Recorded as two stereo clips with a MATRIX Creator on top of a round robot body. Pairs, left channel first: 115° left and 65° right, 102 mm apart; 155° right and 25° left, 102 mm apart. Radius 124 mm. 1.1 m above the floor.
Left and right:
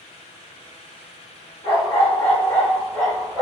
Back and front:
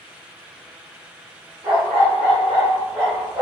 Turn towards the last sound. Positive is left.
turn(degrees=30)